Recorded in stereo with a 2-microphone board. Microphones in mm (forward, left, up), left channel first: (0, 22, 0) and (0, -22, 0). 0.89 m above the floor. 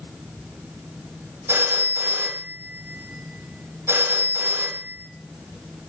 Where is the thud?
I don't hear a thud.